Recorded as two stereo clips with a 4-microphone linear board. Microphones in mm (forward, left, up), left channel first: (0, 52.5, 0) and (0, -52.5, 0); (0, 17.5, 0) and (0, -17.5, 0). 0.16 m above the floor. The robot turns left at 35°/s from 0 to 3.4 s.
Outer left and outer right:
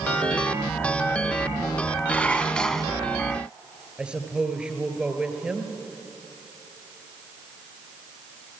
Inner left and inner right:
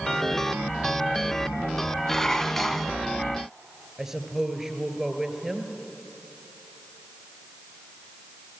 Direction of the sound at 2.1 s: 15° left (ahead or behind).